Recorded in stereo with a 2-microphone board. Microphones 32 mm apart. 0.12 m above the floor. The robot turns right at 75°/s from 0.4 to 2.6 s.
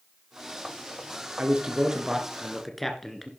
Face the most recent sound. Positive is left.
turn(degrees=10)